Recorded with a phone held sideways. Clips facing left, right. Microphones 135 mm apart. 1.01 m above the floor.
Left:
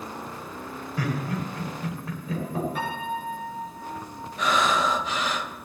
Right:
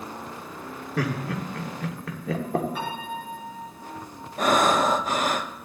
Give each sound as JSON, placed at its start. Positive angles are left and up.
{"t": 1.0, "sound": "laughter", "side_deg": -75, "distance_m": 2.5}
{"t": 2.8, "sound": "a piano", "side_deg": 0, "distance_m": 5.5}
{"t": 4.4, "sound": "breathing", "side_deg": -50, "distance_m": 0.7}